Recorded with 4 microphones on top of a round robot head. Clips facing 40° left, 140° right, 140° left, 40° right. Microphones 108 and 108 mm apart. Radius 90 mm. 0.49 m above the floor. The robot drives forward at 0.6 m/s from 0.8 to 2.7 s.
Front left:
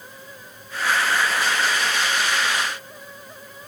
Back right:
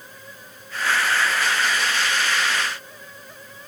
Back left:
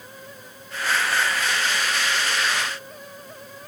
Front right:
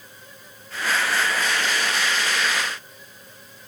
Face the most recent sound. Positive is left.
No sound to turn to.